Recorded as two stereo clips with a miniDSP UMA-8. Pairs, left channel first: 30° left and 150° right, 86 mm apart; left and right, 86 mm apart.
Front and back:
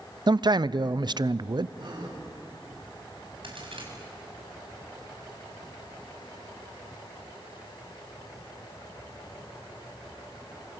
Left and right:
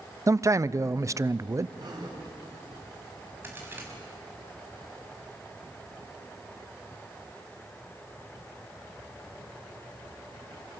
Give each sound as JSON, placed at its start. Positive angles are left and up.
{"t": 0.3, "sound": "a man speaking", "azimuth_deg": -140, "distance_m": 0.6}
{"t": 1.8, "sound": "a gasp", "azimuth_deg": -125, "distance_m": 7.0}
{"t": 3.4, "sound": "a crack", "azimuth_deg": -155, "distance_m": 6.0}